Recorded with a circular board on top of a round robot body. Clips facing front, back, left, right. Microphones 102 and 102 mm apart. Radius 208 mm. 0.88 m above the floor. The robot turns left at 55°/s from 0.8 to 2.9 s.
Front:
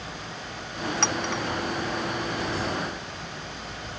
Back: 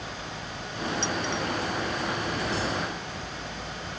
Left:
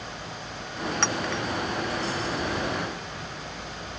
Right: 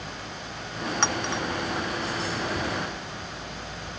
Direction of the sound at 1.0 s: 15° right.